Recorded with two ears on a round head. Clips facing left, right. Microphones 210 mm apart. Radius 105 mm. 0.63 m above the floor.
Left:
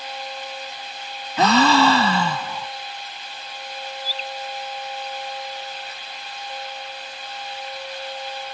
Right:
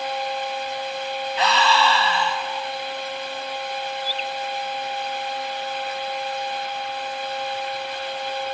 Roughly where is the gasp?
Left.